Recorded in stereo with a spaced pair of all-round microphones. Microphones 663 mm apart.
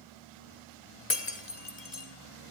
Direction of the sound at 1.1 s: 75° left (ahead or behind).